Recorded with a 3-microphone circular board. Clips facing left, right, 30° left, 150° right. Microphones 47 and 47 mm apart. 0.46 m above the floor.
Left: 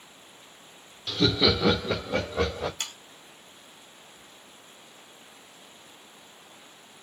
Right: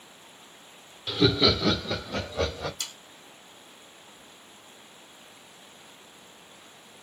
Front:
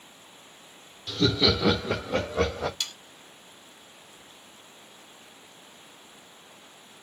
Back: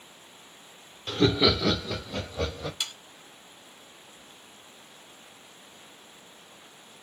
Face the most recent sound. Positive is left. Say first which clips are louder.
# left 2 dB, even
turn(degrees=135)